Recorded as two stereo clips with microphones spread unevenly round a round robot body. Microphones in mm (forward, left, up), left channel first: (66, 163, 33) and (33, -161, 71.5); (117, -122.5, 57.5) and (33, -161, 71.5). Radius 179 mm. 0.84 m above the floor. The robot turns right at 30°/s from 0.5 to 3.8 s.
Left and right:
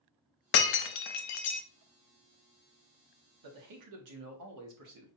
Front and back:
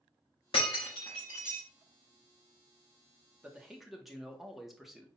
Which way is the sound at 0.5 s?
65° left.